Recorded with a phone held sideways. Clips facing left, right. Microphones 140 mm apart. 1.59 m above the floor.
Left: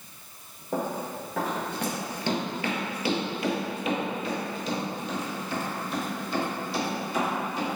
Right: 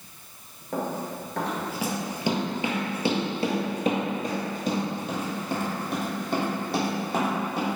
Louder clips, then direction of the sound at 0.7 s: Even; 15° left (ahead or behind).